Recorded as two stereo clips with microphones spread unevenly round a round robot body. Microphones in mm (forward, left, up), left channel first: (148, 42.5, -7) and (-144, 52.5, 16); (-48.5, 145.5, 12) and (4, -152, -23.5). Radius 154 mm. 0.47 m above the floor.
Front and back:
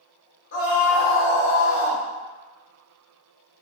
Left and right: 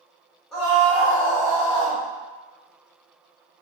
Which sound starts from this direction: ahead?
A scream, at 0.5 s.